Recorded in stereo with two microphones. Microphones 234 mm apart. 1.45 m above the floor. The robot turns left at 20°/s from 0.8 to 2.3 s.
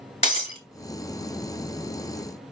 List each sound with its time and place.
0.2 s breaking glass: 30° left (ahead or behind), 2.5 m